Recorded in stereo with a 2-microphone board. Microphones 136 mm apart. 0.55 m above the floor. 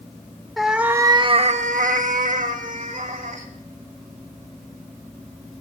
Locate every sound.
0.6 s a cat meowing: centre (ahead or behind), 0.7 m; by 3.5 s 65° right (ahead or behind), 1.7 m